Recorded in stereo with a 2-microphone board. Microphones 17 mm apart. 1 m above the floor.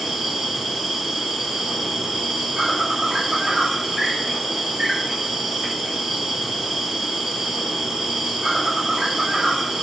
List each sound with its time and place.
0.0 s an insect: 55° right (ahead or behind), 1.3 m